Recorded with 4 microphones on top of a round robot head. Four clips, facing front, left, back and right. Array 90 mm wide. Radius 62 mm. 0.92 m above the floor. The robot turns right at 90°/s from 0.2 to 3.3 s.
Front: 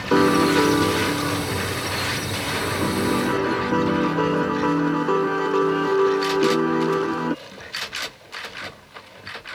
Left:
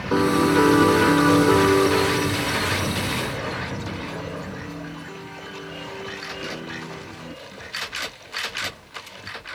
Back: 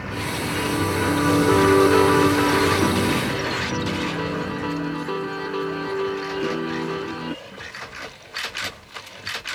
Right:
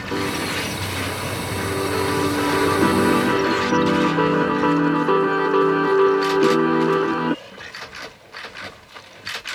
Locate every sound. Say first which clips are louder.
0.1 s a piano: left 7 dB, front 12 dB; 15° left; by 7.3 s 65° right